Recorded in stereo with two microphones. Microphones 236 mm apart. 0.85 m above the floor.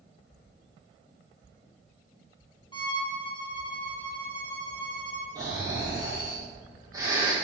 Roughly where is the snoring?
Centre.